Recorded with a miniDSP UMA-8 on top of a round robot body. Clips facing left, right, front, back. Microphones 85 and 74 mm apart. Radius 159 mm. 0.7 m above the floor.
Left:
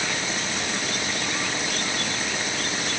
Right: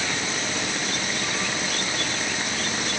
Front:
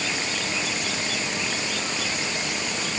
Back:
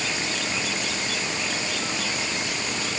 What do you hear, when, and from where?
Only background noise.